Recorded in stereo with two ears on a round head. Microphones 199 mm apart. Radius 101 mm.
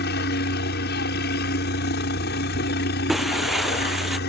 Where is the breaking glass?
Centre (ahead or behind).